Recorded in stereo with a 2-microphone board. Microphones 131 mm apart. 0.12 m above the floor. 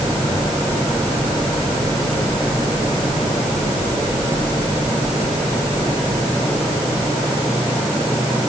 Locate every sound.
Only background noise.